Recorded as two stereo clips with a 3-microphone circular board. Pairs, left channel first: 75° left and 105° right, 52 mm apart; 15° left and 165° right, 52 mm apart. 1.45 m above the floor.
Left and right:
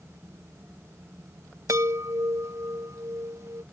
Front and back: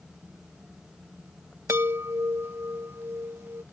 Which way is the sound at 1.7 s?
125° right.